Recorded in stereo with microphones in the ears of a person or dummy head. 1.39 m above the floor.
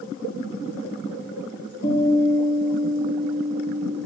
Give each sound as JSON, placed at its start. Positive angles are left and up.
{"t": 1.8, "sound": "a guitar", "side_deg": 50, "distance_m": 2.0}